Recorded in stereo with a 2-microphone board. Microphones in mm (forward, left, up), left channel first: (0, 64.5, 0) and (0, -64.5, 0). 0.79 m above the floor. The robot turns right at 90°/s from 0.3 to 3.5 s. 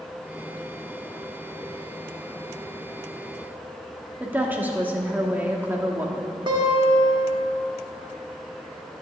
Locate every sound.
4.2 s a woman speaking: 15° right (ahead or behind), 1.3 m
6.5 s a guitar: 40° right (ahead or behind), 1.7 m